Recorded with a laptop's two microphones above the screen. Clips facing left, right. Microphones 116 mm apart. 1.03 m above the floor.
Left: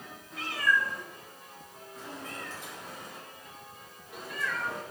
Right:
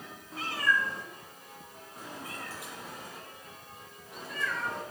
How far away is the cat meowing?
About 2.0 m.